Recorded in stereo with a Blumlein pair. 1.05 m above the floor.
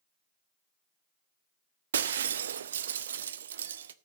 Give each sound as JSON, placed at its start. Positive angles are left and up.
{"t": 1.9, "sound": "breaking glass", "azimuth_deg": -65, "distance_m": 0.8}